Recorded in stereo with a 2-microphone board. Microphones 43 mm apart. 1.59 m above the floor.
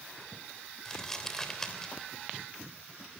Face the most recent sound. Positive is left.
turn(degrees=15)  # may be behind; listen again after turning